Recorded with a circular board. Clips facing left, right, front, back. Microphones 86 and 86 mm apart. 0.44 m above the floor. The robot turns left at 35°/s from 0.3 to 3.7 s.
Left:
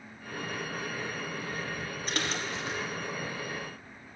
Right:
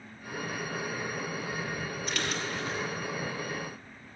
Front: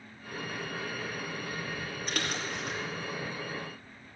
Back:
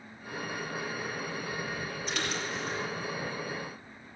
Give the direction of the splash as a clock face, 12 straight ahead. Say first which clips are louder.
Left 1 dB, even; 11 o'clock.